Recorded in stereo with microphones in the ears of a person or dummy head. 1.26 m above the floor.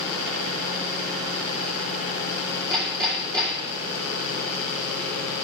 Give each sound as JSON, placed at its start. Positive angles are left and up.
{"t": 2.7, "sound": "hammering", "side_deg": -20, "distance_m": 1.8}